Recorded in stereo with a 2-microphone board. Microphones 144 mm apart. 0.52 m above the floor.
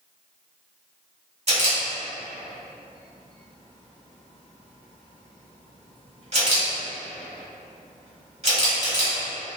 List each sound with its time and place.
1.5 s a camera shutter: 50° right (ahead or behind), 1.7 m